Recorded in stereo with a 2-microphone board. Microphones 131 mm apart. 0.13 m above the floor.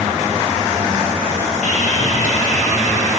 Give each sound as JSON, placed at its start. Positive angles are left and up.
{"t": 1.6, "sound": "sawing", "side_deg": 65, "distance_m": 9.5}